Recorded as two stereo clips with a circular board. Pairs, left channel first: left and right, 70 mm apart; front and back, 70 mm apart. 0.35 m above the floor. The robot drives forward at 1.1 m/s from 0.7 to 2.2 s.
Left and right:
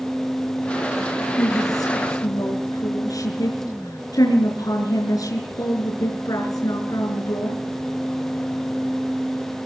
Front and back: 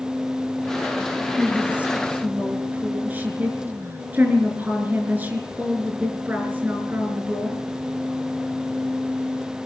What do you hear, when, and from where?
1.4 s a woman speaking: 105° left, 5 m; by 7.6 s 115° left, 5.5 m